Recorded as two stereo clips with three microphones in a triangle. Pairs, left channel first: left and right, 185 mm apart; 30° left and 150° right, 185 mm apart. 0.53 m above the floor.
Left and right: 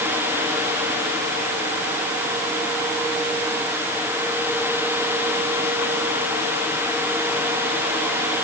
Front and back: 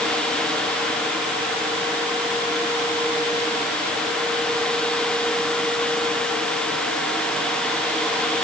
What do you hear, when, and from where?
Only background noise.